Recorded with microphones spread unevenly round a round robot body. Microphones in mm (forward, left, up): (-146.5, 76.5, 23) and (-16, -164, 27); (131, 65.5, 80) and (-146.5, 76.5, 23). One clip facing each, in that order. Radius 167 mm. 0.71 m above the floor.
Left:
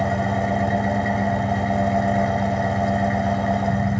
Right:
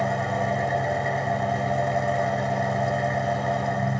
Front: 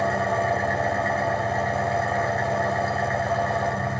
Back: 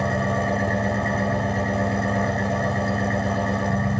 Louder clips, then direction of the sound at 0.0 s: Left 4 dB, back 1 dB; 125° left.